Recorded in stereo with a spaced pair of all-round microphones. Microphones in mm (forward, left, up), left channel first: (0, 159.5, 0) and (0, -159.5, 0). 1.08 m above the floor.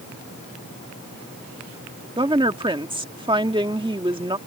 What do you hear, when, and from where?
2.2 s a woman speaking: 15° right (ahead or behind)